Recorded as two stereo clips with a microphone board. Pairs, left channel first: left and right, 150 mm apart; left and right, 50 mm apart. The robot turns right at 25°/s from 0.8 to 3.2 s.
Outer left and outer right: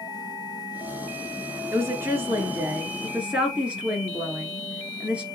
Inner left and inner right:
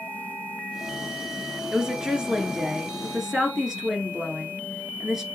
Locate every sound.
1.7 s a woman speaking: 20° right (ahead or behind), 1.1 m; by 5.2 s 10° right (ahead or behind), 1.1 m